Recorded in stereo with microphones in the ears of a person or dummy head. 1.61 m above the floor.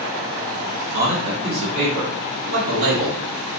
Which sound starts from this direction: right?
A man speaking, at 0.9 s.